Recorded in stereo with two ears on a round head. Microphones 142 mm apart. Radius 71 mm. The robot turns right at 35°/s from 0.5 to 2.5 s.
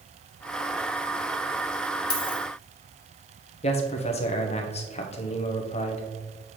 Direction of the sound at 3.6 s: 40° left (ahead or behind).